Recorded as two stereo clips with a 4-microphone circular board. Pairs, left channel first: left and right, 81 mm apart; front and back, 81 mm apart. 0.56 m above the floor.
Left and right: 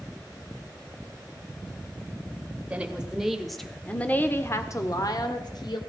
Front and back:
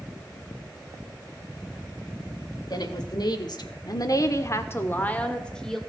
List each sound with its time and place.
2.7 s a woman speaking: 20° right, 1.8 m; by 5.8 s 85° left, 1.7 m